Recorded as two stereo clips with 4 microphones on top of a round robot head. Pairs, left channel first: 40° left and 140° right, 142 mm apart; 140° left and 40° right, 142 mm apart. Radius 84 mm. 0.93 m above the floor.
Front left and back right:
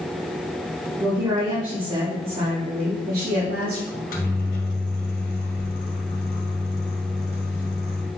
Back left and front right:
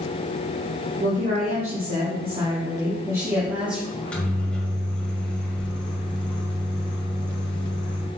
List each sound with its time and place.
1.0 s a woman speaking: 70° right, 2 m; by 3.8 s 125° right, 1.9 m
3.9 s a microwave: 60° left, 1.8 m